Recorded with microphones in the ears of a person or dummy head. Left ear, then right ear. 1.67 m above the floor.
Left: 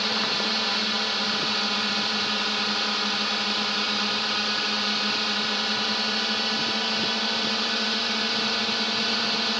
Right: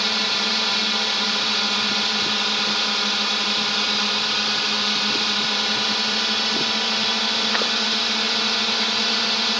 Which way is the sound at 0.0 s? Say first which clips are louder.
Right 4 dB; 10° right (ahead or behind).